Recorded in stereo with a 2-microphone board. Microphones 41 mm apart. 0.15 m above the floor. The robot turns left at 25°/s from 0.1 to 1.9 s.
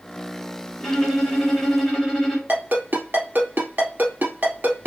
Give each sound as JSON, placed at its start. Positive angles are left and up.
{"t": 0.8, "sound": "a violin", "side_deg": 15, "distance_m": 2.0}
{"t": 2.5, "sound": "a ringtone", "side_deg": -50, "distance_m": 2.0}